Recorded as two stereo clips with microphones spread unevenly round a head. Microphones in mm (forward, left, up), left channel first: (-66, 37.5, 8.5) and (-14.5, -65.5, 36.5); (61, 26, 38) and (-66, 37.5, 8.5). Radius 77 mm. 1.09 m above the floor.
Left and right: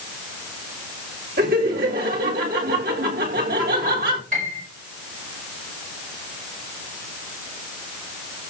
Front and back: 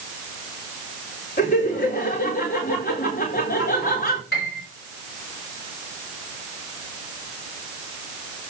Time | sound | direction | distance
1.4 | laughter | 50° right | 4 m
4.3 | a piano | 25° right | 5.5 m